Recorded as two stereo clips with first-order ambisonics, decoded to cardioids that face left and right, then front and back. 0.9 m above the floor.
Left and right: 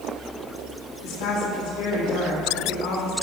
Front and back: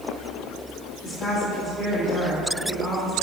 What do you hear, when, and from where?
1.0 s a woman speaking: 75° left, 1.8 m